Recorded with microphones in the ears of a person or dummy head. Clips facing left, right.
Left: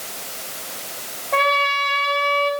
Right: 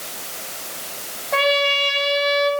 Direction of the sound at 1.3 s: 5° right (ahead or behind).